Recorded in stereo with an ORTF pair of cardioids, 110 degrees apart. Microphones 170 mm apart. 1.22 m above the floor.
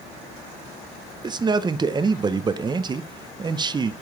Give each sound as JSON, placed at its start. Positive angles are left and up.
{"t": 1.2, "sound": "a man speaking", "azimuth_deg": -25, "distance_m": 0.7}